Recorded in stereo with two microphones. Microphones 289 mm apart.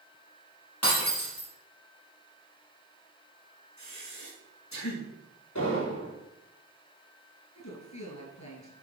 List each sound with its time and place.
0.8 s breaking glass: 60° left (ahead or behind), 5 m
3.8 s breathing: 70° left (ahead or behind), 5.5 m
5.5 s an explosion: 75° left (ahead or behind), 5.5 m
7.5 s a woman speaking: 75° left (ahead or behind), 5 m